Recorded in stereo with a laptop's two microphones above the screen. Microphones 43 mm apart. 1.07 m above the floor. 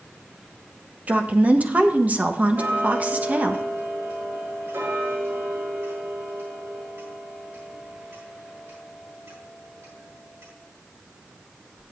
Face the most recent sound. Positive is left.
turn(degrees=-75)  # may be behind; listen again after turning